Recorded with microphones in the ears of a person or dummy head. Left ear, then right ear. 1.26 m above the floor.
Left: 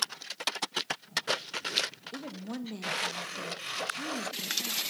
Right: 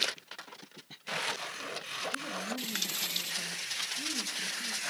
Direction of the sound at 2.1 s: 75° left (ahead or behind).